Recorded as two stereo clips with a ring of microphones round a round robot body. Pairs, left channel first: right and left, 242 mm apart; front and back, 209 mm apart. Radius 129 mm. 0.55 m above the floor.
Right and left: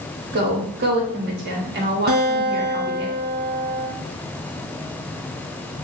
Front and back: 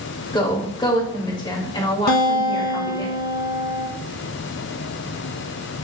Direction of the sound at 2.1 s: 40° left.